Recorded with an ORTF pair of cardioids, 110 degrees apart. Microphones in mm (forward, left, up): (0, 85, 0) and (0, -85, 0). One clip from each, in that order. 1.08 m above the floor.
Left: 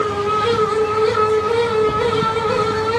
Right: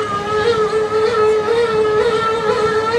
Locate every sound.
0.0 s a fan: 50° right, 1.2 m